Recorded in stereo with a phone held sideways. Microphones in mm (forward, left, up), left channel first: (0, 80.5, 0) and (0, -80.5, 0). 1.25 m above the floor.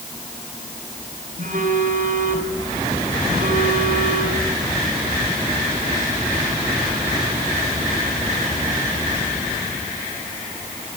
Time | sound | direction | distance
1.4 | a phone buzzing | 55° right (ahead or behind) | 4 m